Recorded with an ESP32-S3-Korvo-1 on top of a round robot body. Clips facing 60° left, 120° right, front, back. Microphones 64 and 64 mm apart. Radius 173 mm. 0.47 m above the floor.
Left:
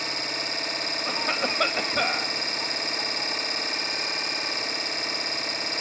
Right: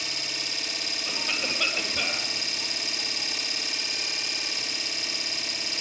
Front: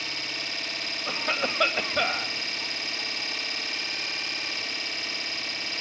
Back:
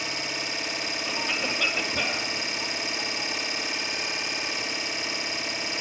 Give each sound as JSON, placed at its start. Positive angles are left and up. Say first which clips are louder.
{"t": 0.0, "sound": "an engine running", "louder": "left 4 dB, back 3 dB", "azimuth_deg": 110, "distance_m": 0.8}
{"t": 1.1, "sound": "a cough", "louder": "left 4 dB, front 2 dB", "azimuth_deg": 20, "distance_m": 3.5}